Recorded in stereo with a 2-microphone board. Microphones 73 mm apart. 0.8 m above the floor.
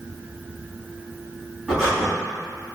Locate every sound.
1.7 s breathing: centre (ahead or behind), 1.8 m